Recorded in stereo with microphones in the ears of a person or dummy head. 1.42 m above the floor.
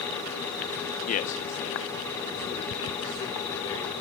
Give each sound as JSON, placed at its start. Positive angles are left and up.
{"t": 1.1, "sound": "a man speaking", "side_deg": 35, "distance_m": 0.5}